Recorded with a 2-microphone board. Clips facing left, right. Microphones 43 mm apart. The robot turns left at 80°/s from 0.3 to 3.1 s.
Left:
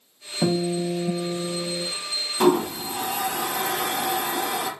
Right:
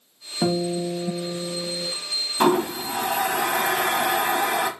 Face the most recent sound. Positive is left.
turn(degrees=-55)  # may be behind; listen again after turning